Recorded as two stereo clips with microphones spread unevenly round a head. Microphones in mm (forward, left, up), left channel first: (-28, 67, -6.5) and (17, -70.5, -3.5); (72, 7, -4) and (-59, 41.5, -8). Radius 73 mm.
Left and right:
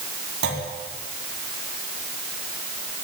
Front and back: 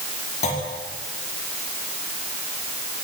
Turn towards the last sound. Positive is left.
turn(degrees=-60)